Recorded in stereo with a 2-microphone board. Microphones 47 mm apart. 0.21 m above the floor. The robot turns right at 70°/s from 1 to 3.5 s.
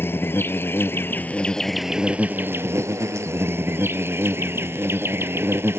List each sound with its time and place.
0.0 s an insect: 125° left; by 5.8 s 60° right